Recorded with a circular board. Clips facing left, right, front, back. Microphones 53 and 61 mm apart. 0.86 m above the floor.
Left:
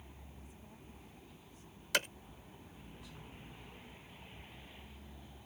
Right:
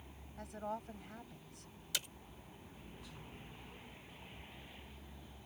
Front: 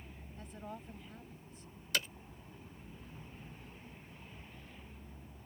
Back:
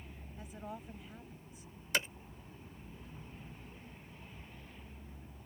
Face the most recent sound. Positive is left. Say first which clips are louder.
# left 10 dB, back 2 dB
turn(degrees=115)